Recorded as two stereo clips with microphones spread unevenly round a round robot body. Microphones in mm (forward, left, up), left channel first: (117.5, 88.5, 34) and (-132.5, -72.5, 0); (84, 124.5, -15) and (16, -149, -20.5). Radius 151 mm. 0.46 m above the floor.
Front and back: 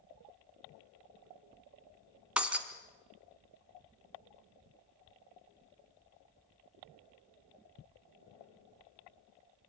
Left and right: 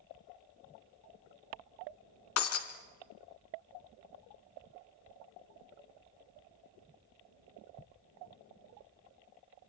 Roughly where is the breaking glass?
Behind left.